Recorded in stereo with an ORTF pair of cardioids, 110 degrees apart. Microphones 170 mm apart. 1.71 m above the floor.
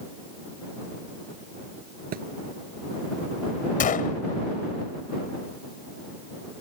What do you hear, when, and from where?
2.1 s a thud: 60° right
3.8 s a gunshot: 50° left